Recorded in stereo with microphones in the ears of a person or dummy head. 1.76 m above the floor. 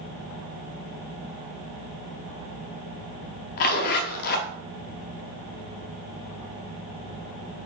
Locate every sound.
3.6 s a zipper: 50° left (ahead or behind), 0.6 m